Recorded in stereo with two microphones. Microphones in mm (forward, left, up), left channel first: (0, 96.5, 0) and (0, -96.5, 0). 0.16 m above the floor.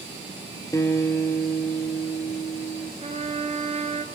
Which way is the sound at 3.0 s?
35° right (ahead or behind).